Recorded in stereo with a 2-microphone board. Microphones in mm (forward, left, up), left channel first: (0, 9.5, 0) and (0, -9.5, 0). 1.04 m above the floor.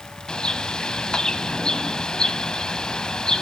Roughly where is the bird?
Left.